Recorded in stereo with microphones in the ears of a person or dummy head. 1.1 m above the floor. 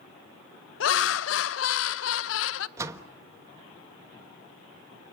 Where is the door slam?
20° right (ahead or behind), 1.1 m.